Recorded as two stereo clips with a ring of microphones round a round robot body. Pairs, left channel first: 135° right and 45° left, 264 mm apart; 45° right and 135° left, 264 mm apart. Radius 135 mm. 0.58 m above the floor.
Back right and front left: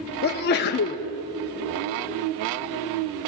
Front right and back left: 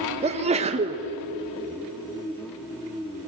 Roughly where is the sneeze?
Behind.